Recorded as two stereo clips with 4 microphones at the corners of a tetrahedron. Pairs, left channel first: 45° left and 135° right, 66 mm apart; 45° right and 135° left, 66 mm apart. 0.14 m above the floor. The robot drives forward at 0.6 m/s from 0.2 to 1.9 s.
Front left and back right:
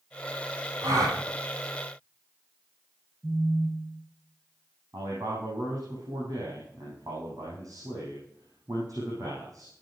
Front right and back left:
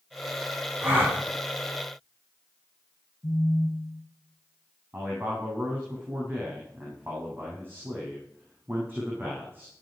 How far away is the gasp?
About 6.5 m.